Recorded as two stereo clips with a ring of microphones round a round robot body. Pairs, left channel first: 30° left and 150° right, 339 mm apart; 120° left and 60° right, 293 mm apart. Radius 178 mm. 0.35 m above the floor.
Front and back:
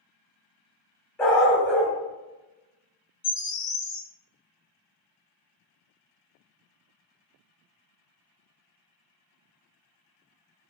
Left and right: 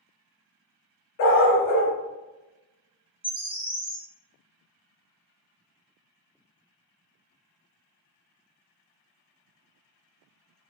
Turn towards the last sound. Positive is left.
turn(degrees=50)